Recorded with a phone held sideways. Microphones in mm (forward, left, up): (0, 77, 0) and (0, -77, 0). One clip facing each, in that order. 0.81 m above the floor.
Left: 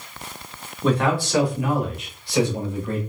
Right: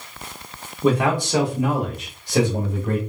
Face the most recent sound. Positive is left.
turn(degrees=-55)  # may be behind; listen again after turning